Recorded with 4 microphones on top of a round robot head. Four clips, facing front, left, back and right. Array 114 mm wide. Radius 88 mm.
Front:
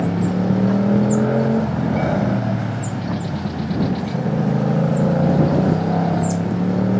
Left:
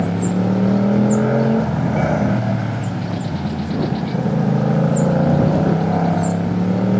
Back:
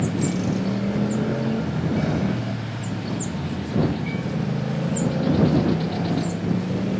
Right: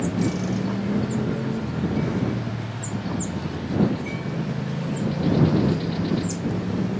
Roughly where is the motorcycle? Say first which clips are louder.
Left 5 dB, front 4 dB; ahead left.